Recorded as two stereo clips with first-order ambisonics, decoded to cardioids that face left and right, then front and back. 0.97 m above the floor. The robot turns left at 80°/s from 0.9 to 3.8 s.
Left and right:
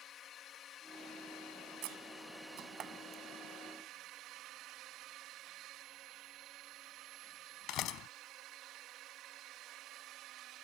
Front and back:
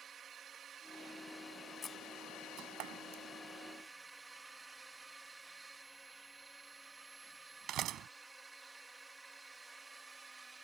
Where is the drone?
125° left; by 10.6 s 105° right.